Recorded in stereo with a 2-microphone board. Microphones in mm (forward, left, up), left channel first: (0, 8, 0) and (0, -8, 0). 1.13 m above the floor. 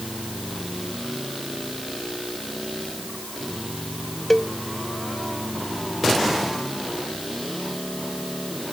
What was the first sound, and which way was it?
A cowbell, 15° left (ahead or behind).